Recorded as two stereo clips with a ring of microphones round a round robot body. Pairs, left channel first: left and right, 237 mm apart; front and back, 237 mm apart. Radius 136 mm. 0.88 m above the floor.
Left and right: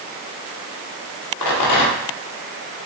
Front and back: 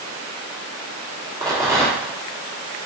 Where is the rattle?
100° left, 0.7 m.